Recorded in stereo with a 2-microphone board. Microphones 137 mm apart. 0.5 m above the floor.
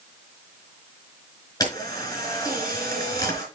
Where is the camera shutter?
25° left (ahead or behind), 4.5 m.